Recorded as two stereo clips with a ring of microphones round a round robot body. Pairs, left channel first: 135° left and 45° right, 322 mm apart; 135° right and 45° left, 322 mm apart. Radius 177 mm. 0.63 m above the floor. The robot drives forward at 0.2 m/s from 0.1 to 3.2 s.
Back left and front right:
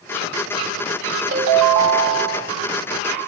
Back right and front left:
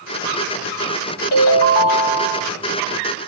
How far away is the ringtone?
About 1.9 m.